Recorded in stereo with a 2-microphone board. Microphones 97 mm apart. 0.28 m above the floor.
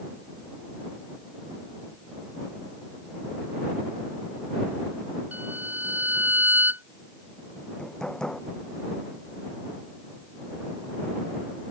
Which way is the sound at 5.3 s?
20° right (ahead or behind).